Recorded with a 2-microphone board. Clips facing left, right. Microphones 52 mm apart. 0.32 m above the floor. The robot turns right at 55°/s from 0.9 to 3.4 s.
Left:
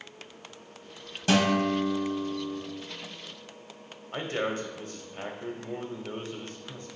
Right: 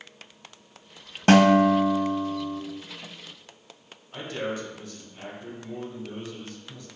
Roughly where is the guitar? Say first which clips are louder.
Right 8 dB; behind right.